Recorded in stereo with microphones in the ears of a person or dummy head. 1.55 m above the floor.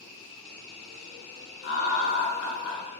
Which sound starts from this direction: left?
Laughter, at 1.6 s.